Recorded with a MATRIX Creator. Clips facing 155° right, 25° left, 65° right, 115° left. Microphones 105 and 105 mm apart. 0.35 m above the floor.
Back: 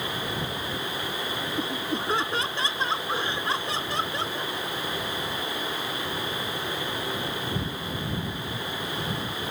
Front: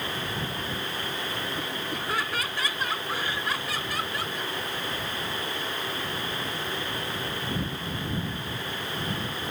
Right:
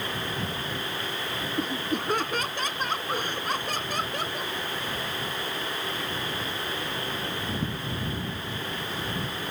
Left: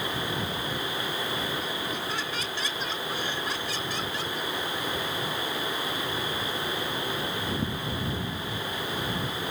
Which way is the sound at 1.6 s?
95° right.